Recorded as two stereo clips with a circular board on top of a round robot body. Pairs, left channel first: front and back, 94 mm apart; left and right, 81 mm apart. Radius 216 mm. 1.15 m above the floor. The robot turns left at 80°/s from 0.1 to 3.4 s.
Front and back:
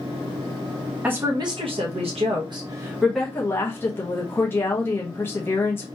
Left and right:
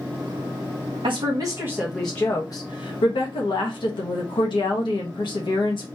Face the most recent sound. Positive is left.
turn(degrees=65)